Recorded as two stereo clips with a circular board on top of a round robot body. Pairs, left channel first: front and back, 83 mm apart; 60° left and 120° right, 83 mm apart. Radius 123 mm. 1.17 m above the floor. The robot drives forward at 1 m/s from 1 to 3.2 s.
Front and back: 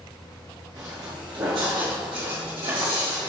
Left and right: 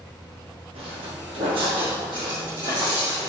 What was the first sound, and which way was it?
Footsteps, 130° right.